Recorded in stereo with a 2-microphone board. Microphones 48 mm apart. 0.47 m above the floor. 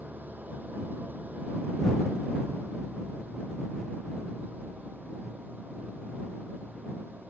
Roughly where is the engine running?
Right.